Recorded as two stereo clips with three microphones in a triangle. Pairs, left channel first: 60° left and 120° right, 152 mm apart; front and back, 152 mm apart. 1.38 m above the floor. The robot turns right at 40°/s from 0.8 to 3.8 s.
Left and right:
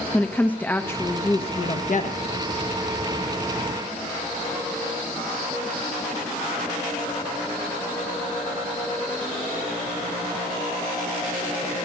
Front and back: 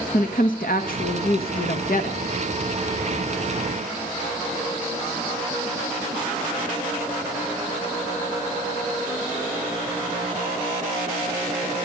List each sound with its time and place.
0.1 s a woman speaking: 20° right, 1.4 m; by 2.2 s 35° left, 1.4 m